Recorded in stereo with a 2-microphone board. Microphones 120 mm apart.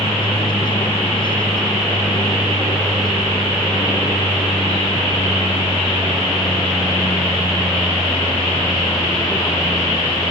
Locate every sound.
0.0 s an aircraft: 40° left (ahead or behind); by 10.3 s 35° left (ahead or behind)